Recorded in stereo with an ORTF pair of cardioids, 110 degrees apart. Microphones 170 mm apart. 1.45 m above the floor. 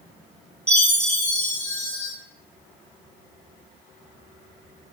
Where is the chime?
15° right, 2.0 m.